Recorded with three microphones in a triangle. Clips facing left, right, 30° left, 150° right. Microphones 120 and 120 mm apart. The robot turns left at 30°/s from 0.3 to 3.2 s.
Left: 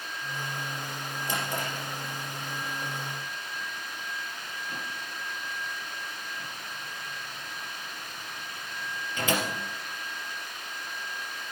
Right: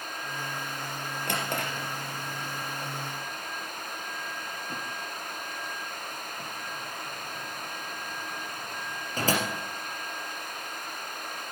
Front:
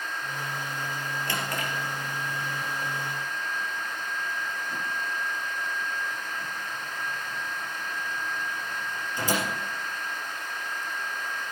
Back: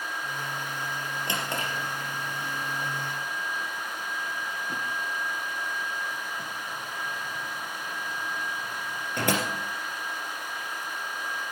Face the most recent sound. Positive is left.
turn(degrees=-140)